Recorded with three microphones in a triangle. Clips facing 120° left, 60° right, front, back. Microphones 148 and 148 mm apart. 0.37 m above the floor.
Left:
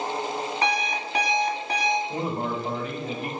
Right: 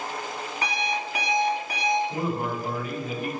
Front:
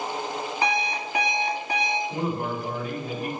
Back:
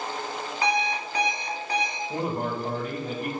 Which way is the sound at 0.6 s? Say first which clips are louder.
Left 1 dB, back 1 dB; 65° left.